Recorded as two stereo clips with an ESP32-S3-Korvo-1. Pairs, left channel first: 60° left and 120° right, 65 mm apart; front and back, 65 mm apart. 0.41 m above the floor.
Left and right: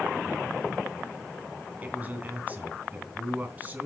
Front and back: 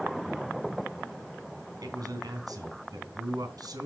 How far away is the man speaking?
About 3 m.